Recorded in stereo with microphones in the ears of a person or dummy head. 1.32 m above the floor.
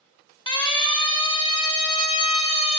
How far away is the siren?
About 4 m.